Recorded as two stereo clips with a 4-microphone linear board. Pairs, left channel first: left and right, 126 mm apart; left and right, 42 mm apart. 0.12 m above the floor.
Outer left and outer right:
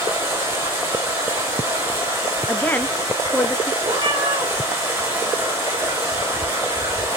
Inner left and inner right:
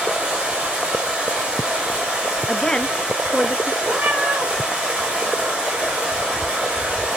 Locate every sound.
0.0 s running water: 20° right (ahead or behind), 8 m
2.5 s a woman speaking: 15° left (ahead or behind), 1.3 m
3.8 s a cat meowing: 35° right (ahead or behind), 5.5 m